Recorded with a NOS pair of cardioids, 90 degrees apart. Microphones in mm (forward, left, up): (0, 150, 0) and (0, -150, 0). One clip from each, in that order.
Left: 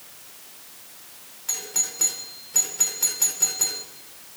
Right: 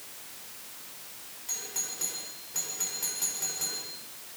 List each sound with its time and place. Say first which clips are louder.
1.5 s a doorbell: left 8 dB; 55° left, 6 m